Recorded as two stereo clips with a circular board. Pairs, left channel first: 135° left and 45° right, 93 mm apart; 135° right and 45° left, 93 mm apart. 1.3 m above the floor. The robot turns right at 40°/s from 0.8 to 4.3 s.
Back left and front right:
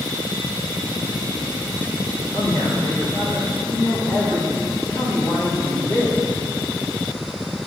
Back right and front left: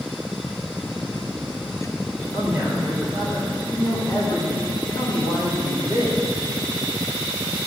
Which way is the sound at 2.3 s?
105° left.